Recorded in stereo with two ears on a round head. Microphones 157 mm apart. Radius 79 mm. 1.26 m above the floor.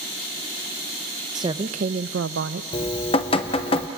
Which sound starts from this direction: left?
Dripping, at 2.7 s.